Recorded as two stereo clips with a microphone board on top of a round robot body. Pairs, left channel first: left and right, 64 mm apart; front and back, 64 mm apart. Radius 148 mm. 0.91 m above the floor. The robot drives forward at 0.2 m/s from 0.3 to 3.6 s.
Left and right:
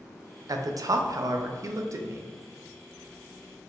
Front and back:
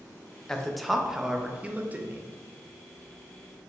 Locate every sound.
0.5 s a man speaking: 80° right, 0.5 m; by 2.3 s 125° right, 0.6 m